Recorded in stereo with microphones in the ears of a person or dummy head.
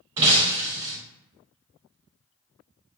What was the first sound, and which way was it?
Breaking glass, 20° right (ahead or behind).